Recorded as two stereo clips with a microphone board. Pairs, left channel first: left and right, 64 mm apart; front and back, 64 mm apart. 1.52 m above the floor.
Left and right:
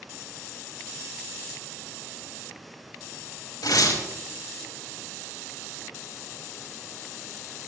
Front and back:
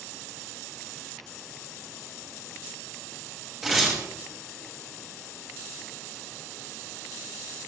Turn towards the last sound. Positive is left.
turn(degrees=90)